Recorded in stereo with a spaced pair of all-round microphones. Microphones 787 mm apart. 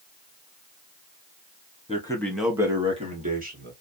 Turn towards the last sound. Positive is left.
turn(degrees=-15)  # may be behind; listen again after turning